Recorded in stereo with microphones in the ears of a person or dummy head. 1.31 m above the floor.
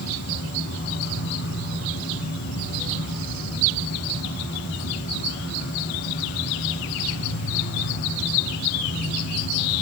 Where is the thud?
No thud in this recording.